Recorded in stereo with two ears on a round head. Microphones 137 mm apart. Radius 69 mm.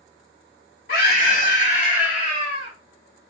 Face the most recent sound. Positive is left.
turn(degrees=45)  # may be behind; listen again after turning